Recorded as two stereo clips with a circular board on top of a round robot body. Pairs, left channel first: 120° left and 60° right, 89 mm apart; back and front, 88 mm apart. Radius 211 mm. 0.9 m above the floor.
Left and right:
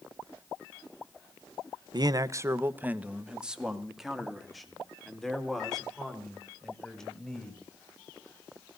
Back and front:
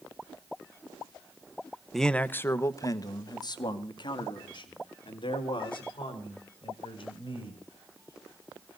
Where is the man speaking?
90° right, 0.9 m; by 7.6 s 160° right, 5.5 m.